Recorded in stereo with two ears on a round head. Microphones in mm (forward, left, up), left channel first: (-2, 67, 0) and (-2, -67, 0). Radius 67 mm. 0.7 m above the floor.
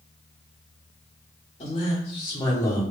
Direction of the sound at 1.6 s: 40° left (ahead or behind).